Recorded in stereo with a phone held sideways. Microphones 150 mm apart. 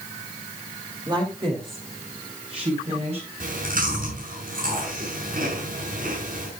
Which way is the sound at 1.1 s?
30° right (ahead or behind).